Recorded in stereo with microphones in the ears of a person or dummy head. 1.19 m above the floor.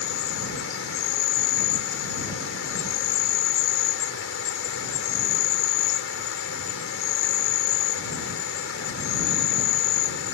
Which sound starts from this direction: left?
An insect, at 0.0 s.